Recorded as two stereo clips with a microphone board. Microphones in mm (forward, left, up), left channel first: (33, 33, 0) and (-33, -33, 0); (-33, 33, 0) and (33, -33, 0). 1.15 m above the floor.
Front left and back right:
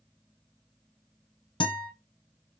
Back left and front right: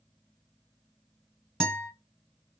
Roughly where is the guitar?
Ahead left.